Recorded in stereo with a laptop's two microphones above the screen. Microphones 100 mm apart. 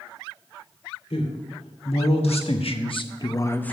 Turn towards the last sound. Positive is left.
turn(degrees=10)  # may be behind; listen again after turning